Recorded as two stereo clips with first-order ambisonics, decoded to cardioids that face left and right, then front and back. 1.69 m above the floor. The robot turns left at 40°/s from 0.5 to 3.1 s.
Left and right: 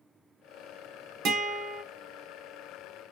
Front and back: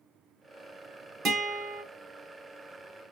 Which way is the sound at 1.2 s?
125° right.